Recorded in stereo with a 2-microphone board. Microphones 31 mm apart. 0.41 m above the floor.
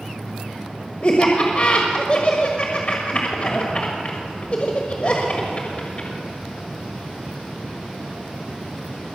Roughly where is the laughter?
Left.